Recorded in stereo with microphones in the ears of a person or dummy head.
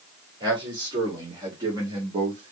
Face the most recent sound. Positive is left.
turn(degrees=-25)  # may be behind; listen again after turning